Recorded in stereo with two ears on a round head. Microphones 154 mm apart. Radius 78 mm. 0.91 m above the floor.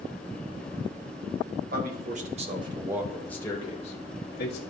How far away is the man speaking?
About 1.4 m.